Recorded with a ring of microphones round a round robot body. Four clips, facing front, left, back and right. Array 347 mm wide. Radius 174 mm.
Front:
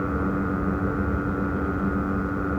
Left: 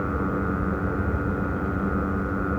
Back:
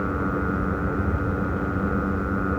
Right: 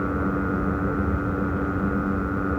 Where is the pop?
No pop in this recording.